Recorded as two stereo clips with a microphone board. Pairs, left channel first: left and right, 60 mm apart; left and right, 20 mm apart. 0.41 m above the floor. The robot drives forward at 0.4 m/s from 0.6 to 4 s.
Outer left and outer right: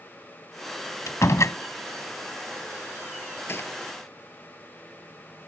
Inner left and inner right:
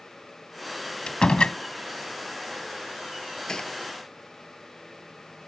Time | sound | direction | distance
1.1 | a door slam | 60° left (ahead or behind) | ?
3.5 | a gunshot | 45° left (ahead or behind) | ?